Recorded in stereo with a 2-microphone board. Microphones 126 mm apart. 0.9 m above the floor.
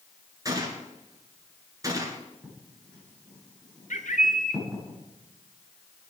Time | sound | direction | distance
0.5 | a gunshot | 30° right (ahead or behind) | 2.5 m
2.4 | writing | 5° left (ahead or behind) | 8.5 m
3.9 | a bird | 80° left | 1.4 m